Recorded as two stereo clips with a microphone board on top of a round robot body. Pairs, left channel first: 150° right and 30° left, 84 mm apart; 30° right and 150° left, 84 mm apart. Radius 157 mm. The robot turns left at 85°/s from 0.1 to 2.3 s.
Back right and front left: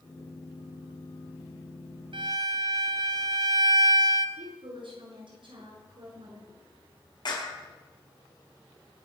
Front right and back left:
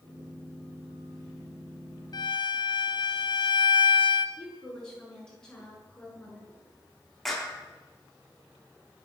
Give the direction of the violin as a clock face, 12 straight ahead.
12 o'clock.